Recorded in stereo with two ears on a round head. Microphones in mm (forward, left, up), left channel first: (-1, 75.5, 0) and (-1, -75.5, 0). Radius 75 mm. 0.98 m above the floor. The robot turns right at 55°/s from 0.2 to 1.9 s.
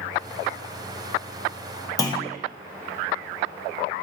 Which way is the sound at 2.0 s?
20° left (ahead or behind).